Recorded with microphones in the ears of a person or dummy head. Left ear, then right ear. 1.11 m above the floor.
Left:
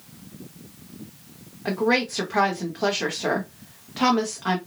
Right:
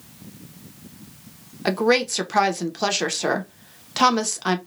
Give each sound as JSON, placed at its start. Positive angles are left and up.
{"t": 1.6, "sound": "a woman speaking", "side_deg": -90, "distance_m": 0.8}